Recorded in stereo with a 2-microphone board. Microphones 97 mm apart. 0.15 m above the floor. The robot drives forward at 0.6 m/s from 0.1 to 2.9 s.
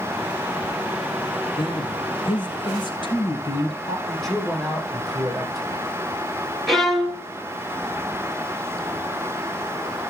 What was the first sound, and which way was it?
A man speaking, 60° left (ahead or behind).